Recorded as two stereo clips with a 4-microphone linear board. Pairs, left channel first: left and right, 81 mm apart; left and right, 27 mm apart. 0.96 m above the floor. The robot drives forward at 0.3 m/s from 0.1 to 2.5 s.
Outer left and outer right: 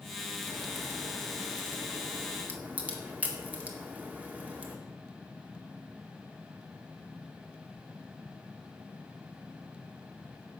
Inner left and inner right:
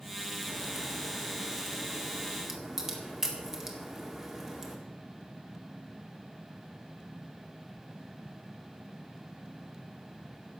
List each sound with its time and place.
0.5 s a crack: 25° right (ahead or behind), 1.4 m; by 4.8 s 15° right (ahead or behind), 1.9 m